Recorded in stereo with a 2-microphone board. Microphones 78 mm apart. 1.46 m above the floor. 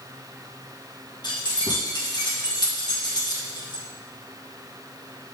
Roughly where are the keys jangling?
Left.